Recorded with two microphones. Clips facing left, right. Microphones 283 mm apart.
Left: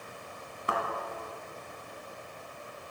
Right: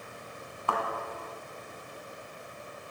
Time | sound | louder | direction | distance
0.7 | a thud | right 1 dB | 20° left (ahead or behind) | 1.8 m